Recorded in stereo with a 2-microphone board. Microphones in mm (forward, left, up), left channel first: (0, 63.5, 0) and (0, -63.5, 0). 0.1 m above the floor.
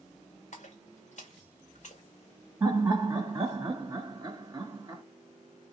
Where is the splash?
65° left (ahead or behind), 2 m.